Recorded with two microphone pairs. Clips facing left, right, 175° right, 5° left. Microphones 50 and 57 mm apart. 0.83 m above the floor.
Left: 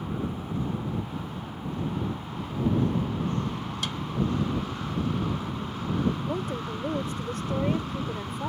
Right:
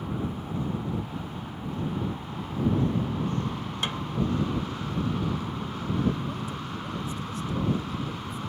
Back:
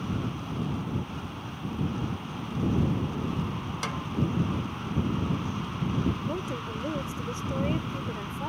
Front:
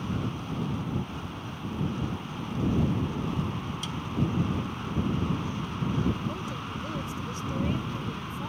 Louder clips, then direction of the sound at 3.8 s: Right 3 dB, back 3 dB; 155° right.